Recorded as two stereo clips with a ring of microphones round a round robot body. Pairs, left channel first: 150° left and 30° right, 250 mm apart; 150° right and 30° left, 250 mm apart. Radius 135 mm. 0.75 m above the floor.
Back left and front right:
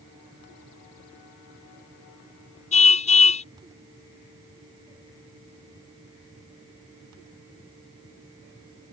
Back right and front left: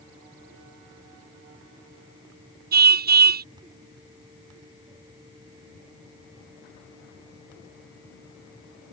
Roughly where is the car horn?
Left.